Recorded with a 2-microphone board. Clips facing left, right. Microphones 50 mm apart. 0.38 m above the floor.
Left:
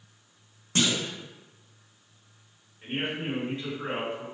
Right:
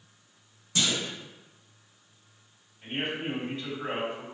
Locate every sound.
0.8 s a clunk: 45° left (ahead or behind), 0.5 m
2.8 s a man speaking: 35° left (ahead or behind), 1.7 m